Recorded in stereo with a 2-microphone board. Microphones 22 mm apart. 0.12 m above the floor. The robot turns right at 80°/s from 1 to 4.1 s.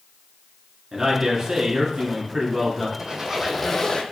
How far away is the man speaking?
About 1.3 m.